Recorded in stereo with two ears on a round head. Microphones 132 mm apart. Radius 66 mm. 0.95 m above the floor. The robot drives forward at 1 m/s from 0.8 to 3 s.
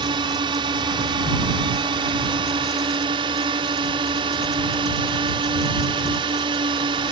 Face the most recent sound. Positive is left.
turn(degrees=-30)  # may be behind; listen again after turning